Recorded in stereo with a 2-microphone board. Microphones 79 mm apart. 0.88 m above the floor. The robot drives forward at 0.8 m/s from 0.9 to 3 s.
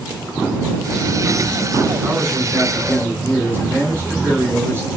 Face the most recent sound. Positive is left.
turn(degrees=-30)  # may be behind; listen again after turning